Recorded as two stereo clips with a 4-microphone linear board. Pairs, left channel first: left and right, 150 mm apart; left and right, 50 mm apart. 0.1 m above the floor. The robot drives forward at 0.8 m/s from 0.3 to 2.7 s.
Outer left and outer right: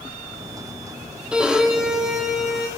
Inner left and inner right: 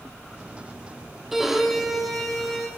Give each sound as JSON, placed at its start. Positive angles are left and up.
{"t": 1.3, "sound": "a violin", "side_deg": -5, "distance_m": 1.0}